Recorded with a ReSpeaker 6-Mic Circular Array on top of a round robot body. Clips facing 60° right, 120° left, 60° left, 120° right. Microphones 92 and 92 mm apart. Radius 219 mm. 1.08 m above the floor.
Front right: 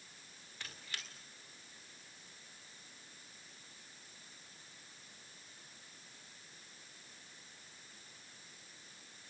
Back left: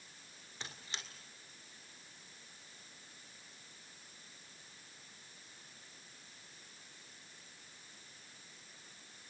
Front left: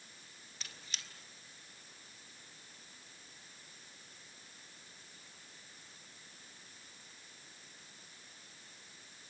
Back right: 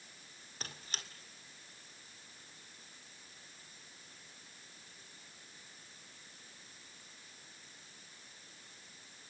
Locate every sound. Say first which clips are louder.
0.6 s a squeak: back left 1 dB, back right 4 dB; 170° right, 1.7 m